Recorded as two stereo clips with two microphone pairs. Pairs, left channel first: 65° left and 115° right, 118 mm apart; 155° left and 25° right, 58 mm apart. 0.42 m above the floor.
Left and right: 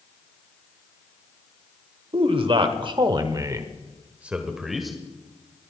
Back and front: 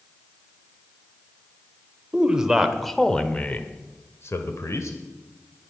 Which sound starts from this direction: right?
A man speaking, at 2.1 s.